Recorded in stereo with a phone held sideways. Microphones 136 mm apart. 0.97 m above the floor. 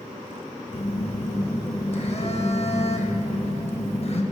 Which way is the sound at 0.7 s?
50° left (ahead or behind).